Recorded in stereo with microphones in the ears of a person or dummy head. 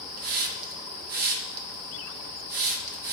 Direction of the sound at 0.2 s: 55° right (ahead or behind).